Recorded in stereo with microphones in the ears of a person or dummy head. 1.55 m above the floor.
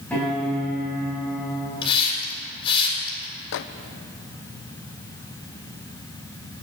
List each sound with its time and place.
0.1 s a piano: 5° left (ahead or behind), 4 m
1.8 s a hiss: 20° left (ahead or behind), 5 m
3.5 s a microwave: 65° left (ahead or behind), 0.5 m